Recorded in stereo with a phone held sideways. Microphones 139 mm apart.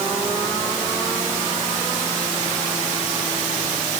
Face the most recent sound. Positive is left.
No sound to turn to.